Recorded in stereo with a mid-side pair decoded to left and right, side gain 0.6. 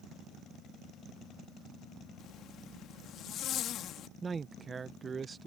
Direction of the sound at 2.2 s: 55° left.